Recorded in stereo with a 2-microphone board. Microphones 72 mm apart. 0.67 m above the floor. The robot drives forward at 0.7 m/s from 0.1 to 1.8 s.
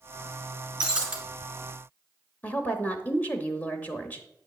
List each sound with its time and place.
0.8 s breaking glass: 15° right (ahead or behind), 1.4 m
2.4 s a woman speaking: 25° left (ahead or behind), 0.7 m